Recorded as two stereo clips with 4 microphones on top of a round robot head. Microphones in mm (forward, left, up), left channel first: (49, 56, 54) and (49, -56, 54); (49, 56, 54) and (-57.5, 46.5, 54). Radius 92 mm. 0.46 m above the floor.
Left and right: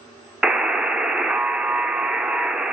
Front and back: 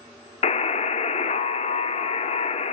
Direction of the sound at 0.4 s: 5° right.